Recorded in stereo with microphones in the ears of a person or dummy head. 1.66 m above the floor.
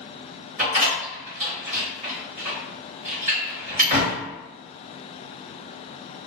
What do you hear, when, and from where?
0.6 s a door slam: 40° right (ahead or behind), 1.6 m